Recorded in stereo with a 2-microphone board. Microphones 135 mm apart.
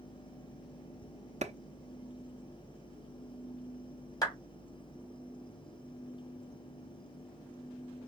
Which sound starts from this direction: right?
A clap, at 1.4 s.